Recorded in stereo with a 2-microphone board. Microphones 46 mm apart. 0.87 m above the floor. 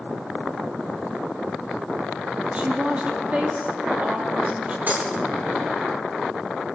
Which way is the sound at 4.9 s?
45° right (ahead or behind).